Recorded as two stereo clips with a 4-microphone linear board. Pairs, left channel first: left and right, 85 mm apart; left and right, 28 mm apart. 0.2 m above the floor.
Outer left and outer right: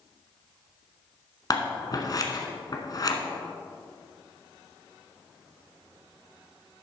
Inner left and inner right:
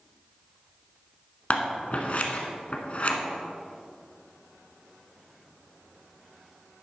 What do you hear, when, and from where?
1.5 s scissors: 45° left (ahead or behind), 1.2 m